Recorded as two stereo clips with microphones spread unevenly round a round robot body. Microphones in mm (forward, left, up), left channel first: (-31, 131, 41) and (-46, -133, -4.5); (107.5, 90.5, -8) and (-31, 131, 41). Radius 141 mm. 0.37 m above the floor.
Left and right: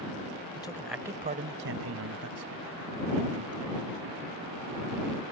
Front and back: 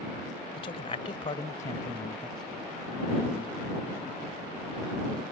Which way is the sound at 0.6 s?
10° left.